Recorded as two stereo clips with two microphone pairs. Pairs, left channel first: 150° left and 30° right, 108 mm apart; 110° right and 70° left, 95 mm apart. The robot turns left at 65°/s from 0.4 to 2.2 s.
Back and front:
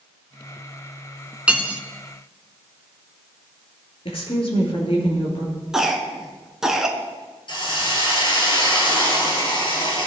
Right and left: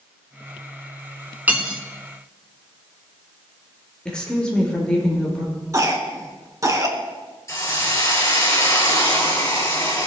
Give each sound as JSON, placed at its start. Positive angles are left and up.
{"t": 1.5, "sound": "cutlery clinking", "azimuth_deg": 25, "distance_m": 0.8}
{"t": 4.0, "sound": "a woman speaking", "azimuth_deg": 170, "distance_m": 3.0}
{"t": 5.7, "sound": "a cough", "azimuth_deg": 50, "distance_m": 1.2}
{"t": 7.5, "sound": "a hiss", "azimuth_deg": -170, "distance_m": 1.9}